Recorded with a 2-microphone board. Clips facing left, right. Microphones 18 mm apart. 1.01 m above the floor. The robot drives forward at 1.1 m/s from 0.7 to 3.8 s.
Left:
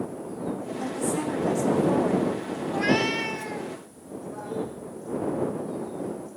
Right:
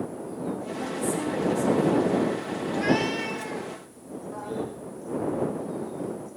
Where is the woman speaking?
55° left (ahead or behind), 3 m; by 2.3 s 80° left, 2.5 m.